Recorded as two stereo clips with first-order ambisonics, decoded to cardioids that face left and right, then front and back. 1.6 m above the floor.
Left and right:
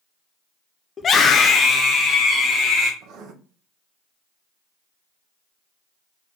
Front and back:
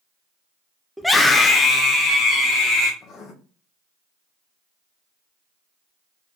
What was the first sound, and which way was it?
A scream, 95° left.